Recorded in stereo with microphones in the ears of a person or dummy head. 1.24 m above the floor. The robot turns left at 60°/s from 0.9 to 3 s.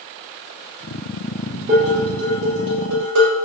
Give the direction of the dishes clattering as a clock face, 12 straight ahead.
2 o'clock.